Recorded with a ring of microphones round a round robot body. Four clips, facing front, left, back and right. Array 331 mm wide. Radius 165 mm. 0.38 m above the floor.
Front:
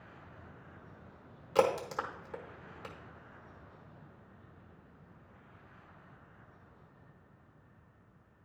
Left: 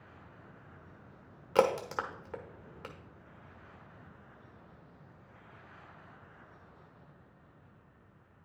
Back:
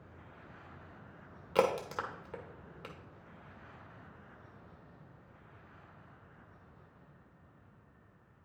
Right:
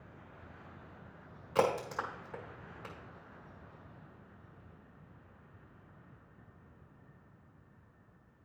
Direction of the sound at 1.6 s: 105° left.